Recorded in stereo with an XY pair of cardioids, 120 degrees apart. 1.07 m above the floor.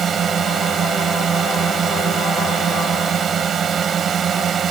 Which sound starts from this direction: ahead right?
A drone, at 0.0 s.